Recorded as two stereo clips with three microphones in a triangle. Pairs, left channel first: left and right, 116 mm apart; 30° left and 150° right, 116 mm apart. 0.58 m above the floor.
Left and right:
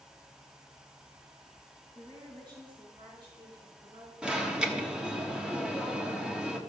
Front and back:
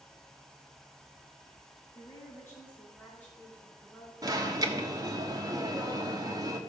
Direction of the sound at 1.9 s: 35° right.